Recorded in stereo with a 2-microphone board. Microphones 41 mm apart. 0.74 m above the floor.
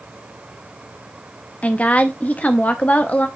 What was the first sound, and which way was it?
A woman speaking, 35° left (ahead or behind).